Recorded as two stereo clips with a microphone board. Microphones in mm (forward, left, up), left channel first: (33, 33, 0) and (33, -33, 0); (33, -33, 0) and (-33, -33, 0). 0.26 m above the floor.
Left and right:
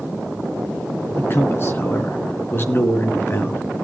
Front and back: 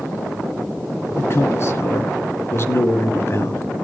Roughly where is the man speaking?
Ahead left.